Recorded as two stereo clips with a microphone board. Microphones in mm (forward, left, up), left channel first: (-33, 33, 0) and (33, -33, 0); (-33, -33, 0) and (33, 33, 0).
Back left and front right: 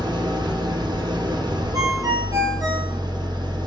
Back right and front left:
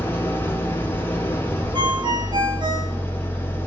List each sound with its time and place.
0.0 s an engine running: 70° right, 3 m
1.7 s a ringtone: 5° left, 4.5 m